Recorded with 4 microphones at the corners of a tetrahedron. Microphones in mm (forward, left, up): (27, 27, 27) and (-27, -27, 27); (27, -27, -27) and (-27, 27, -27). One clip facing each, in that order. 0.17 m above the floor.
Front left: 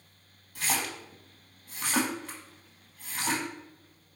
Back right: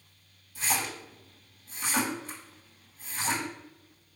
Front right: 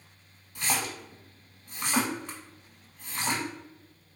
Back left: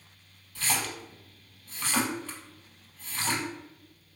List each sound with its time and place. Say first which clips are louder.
0.6 s a splash: even, front right 1 dB; 30° left, 1.0 m